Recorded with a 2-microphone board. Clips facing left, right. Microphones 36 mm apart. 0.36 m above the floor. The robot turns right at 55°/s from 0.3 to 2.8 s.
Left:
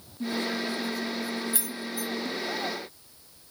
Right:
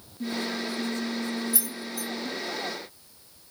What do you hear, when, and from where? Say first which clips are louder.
1.5 s keys jangling: left 1 dB; 40° left (ahead or behind), 1.0 m; by 2.1 s 15° left (ahead or behind), 1.0 m